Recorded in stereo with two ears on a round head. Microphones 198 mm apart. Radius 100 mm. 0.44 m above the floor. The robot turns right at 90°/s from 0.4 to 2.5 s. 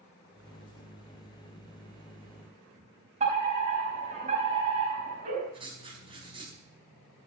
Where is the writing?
25° right (ahead or behind), 4.5 m.